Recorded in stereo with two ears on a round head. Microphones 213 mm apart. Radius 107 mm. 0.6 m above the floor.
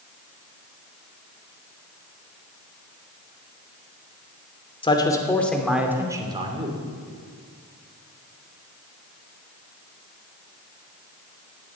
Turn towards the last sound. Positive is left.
turn(degrees=-30)  # may be behind; listen again after turning